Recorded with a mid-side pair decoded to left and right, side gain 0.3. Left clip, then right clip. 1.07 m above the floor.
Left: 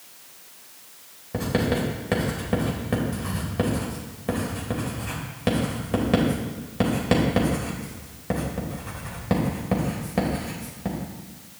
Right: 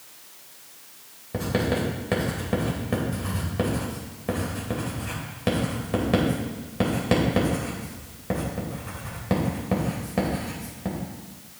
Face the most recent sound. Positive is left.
turn(degrees=10)